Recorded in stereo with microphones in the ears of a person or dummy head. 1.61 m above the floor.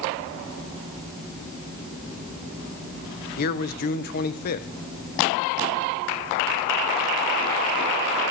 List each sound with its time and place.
3.4 s a man speaking: 50° left (ahead or behind), 1.0 m